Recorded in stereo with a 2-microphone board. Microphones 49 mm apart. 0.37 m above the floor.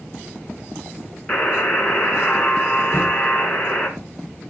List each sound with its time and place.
1.3 s a buzzer: 25° left (ahead or behind), 2.5 m
2.9 s knocking: 45° left (ahead or behind), 5.5 m